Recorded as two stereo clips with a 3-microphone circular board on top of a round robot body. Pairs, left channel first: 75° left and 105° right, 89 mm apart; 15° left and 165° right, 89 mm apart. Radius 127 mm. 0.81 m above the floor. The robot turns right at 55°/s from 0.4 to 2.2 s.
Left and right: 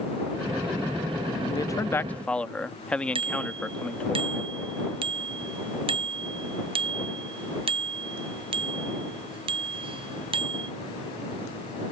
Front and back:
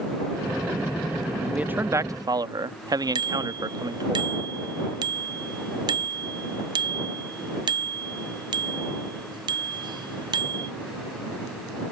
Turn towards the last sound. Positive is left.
turn(degrees=-125)